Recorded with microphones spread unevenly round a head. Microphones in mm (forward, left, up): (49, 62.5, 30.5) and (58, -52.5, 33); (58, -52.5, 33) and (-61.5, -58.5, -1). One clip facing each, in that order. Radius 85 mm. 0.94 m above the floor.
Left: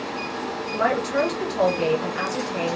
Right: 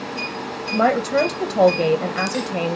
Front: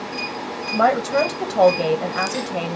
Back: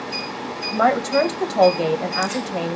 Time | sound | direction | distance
0.7 | a woman speaking | 100° right | 0.7 m